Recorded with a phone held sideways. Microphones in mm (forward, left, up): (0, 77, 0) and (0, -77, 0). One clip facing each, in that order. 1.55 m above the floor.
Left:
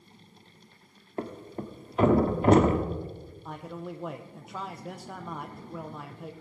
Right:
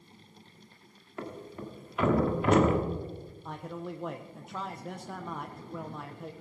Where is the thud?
35° left (ahead or behind), 1.3 m.